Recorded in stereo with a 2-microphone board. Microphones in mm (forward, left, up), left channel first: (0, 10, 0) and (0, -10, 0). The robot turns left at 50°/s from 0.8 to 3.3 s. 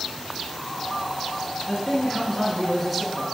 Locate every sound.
1.7 s a man speaking: 55° left, 1.3 m; by 3.2 s 25° right, 1.3 m